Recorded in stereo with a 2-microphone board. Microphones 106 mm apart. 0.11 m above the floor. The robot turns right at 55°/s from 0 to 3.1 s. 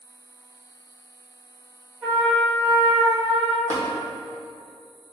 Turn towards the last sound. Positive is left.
turn(degrees=20)  # may be behind; listen again after turning